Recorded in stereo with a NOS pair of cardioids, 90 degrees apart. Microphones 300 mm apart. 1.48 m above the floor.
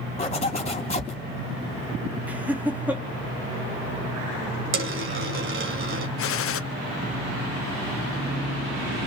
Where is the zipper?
20° left, 3.5 m.